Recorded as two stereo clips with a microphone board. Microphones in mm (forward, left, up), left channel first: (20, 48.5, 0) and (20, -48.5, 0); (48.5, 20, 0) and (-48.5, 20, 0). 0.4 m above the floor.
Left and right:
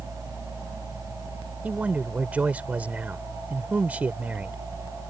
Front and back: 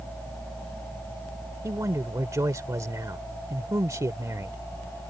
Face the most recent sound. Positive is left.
turn(degrees=-155)